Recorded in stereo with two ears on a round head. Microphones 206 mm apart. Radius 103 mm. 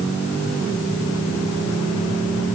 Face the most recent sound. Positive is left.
No sound to turn to.